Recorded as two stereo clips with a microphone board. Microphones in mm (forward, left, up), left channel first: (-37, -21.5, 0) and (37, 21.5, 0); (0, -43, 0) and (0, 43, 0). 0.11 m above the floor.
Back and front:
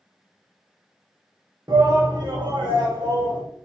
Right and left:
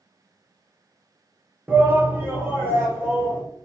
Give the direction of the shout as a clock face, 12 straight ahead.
11 o'clock.